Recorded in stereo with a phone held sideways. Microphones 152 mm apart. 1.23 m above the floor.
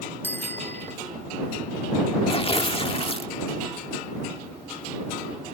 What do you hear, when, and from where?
0.2 s a bicycle bell: 15° left (ahead or behind)
2.3 s tearing paper: 35° left (ahead or behind)